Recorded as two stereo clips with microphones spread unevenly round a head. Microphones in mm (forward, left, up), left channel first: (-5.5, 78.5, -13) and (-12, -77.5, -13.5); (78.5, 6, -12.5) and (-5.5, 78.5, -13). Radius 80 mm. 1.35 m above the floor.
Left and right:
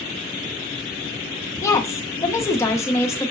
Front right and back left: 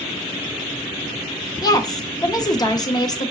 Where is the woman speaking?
15° left, 0.7 m.